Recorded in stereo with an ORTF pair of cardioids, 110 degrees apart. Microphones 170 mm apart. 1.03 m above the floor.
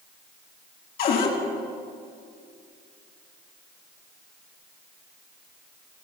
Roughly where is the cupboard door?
Ahead left.